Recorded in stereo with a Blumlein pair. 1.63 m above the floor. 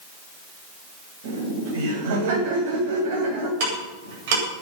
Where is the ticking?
50° right, 8.5 m.